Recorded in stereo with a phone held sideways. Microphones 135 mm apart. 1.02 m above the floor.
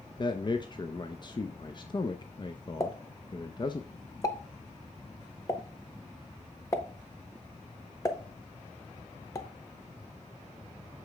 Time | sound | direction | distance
0.2 | a man speaking | 35° left (ahead or behind) | 0.6 m
2.8 | a pop | 25° left (ahead or behind) | 0.8 m